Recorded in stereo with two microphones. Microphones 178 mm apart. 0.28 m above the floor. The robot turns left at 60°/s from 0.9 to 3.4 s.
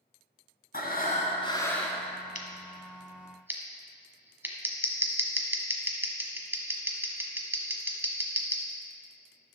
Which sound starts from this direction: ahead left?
Breathing, at 0.7 s.